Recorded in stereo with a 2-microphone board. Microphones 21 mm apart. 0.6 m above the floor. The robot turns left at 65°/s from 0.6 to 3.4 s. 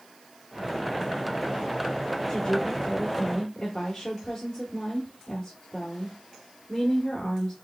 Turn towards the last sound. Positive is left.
turn(degrees=50)